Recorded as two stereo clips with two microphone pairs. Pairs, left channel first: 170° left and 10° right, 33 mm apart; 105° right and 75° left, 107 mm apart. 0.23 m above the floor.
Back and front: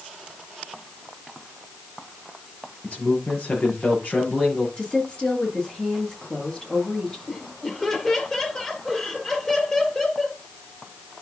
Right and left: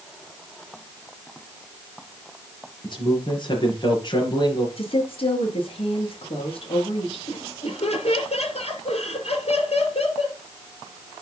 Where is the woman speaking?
130° right, 4.5 m.